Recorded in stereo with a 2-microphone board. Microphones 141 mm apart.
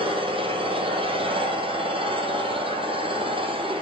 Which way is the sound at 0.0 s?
40° right (ahead or behind).